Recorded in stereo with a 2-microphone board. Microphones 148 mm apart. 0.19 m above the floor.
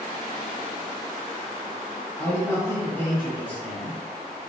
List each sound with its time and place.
2.2 s a man speaking: 15° left (ahead or behind), 1.6 m; by 4.0 s 10° left (ahead or behind), 1.8 m